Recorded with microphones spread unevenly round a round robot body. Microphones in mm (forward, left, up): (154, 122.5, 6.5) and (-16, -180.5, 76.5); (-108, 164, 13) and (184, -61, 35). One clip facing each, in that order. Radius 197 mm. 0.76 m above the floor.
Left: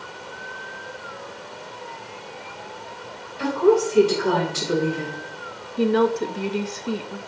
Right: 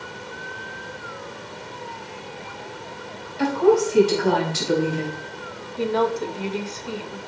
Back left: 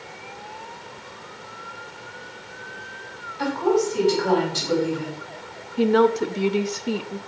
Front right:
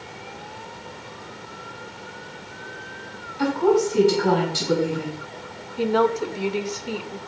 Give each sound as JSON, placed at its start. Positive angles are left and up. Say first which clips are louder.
{"t": 3.4, "sound": "a woman speaking", "louder": "even, front right 2 dB", "azimuth_deg": -95, "distance_m": 4.5}
{"t": 5.8, "sound": "a woman speaking", "louder": "left 3 dB, back left 3 dB", "azimuth_deg": 100, "distance_m": 0.6}